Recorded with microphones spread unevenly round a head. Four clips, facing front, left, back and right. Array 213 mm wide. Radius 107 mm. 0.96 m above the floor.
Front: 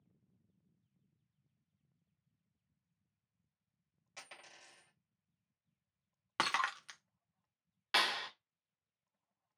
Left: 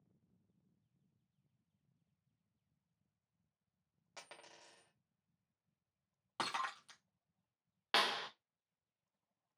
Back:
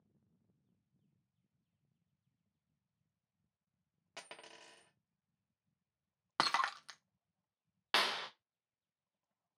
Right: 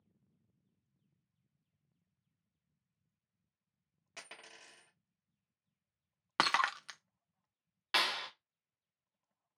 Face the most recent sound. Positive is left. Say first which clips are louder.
# right 1 dB, front 1 dB
turn(degrees=135)